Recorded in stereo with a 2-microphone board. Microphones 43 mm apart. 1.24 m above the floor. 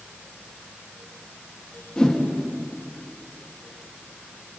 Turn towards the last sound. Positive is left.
turn(degrees=20)  # may be behind; listen again after turning